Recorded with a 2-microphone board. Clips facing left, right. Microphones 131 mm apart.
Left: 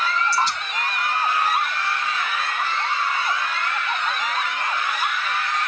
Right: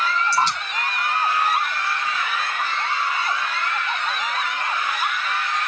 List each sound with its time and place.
0.3 s dripping: 75° right (ahead or behind), 4.5 m